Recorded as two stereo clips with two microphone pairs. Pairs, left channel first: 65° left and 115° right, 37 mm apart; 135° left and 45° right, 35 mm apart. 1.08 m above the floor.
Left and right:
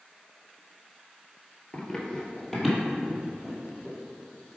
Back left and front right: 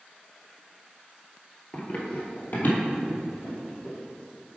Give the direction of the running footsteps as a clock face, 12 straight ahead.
8 o'clock.